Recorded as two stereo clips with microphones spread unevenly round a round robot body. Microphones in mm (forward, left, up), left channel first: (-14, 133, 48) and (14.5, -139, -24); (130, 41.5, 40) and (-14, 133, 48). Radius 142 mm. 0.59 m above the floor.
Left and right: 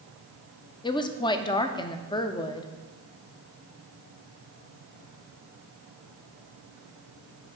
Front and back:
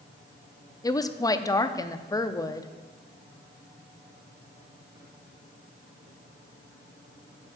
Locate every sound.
0.8 s a woman speaking: 10° left, 0.7 m